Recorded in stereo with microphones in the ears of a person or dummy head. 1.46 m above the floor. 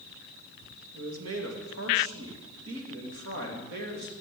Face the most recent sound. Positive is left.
turn(degrees=-55)  # may be behind; listen again after turning